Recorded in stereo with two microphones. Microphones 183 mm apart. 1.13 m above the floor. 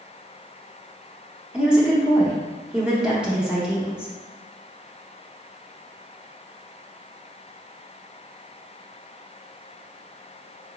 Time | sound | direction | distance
1.5 | a woman speaking | 5° right (ahead or behind) | 0.6 m